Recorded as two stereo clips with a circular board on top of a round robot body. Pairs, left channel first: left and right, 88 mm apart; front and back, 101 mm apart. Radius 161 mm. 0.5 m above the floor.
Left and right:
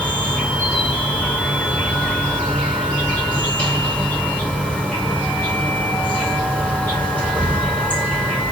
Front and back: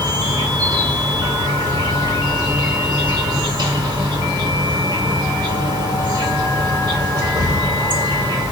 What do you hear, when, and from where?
0.0 s an insect: 160° left, 1.6 m